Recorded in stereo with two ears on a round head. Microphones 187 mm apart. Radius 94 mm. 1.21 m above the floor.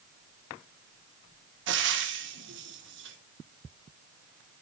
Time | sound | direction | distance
1.7 | frying | 60° right (ahead or behind) | 1.5 m